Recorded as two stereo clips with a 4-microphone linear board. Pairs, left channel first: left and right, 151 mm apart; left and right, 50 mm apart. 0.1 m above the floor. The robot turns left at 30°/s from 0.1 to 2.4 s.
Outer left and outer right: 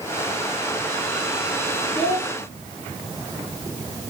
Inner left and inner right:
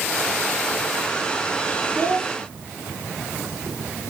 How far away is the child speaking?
About 1.5 m.